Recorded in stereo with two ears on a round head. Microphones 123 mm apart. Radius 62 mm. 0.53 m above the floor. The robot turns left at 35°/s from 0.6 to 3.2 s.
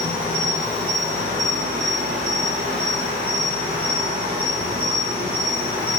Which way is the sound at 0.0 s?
40° right.